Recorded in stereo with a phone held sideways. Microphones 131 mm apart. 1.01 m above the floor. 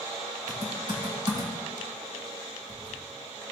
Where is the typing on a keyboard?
35° right (ahead or behind), 2.5 m.